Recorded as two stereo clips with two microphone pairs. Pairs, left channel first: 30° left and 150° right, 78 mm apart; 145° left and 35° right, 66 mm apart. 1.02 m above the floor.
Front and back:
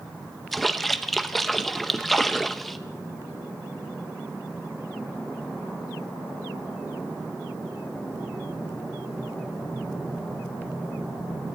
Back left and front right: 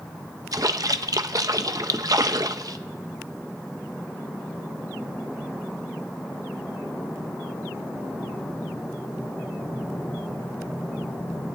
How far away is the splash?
About 0.7 m.